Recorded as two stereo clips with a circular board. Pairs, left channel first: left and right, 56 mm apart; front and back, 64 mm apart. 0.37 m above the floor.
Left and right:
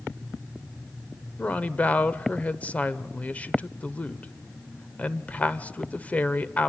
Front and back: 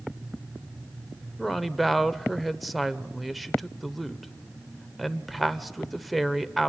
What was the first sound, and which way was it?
A woman speaking, 90° left.